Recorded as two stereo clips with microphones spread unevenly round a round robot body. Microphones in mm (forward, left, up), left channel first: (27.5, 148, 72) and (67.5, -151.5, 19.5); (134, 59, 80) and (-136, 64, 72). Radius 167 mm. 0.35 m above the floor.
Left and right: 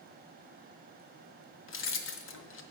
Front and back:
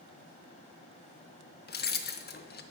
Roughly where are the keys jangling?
Ahead left.